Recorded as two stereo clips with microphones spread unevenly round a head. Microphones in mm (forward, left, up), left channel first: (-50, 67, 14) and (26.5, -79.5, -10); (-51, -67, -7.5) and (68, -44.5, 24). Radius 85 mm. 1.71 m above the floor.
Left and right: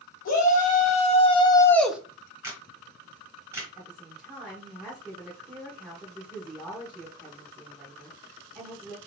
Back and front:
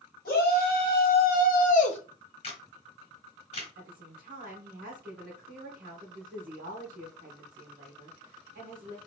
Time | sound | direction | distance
0.2 | a shout | 155° left | 2 m
2.4 | a camera shutter | 140° right | 2.5 m
3.8 | a woman speaking | 30° left | 1.4 m